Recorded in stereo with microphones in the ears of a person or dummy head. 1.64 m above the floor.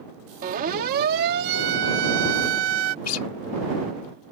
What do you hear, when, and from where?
0.4 s a siren: 40° right (ahead or behind); by 3.0 s 75° right (ahead or behind)
3.0 s a guitar: 85° left